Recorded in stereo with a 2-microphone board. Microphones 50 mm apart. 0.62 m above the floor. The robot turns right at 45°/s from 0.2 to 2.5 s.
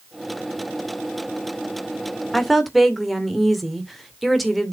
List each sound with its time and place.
2.3 s a woman speaking: 10° left (ahead or behind), 2 m; by 4.7 s centre (ahead or behind), 2 m